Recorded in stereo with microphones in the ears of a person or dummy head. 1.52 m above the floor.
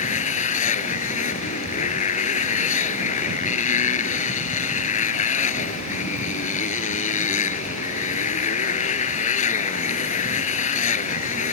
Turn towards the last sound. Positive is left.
turn(degrees=45)  # may be behind; listen again after turning